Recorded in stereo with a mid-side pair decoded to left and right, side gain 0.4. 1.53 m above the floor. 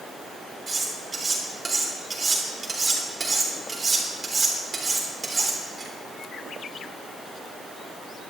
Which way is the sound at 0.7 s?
35° right.